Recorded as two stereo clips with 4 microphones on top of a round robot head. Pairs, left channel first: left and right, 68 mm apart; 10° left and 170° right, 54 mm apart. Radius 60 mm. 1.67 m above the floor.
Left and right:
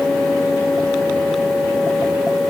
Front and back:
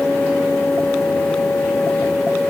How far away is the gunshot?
I don't hear a gunshot.